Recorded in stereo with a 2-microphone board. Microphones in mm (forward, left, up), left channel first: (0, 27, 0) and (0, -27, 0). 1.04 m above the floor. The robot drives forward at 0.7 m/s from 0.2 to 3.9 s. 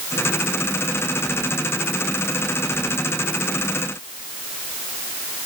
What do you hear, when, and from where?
Only background noise.